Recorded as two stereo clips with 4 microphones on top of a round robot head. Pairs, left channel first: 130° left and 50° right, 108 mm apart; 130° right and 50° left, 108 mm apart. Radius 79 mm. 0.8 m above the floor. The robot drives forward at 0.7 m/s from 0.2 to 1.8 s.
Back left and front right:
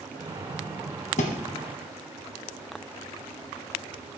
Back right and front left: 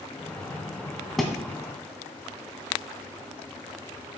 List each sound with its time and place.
1.2 s a thud: 140° left, 1.5 m; by 1.4 s 145° left, 1.6 m